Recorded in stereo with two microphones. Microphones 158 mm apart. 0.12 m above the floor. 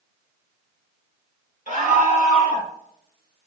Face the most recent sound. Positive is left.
turn(degrees=40)  # may be behind; listen again after turning